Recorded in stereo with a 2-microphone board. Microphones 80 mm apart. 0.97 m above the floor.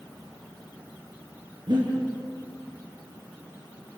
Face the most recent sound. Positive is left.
turn(degrees=-65)  # may be behind; listen again after turning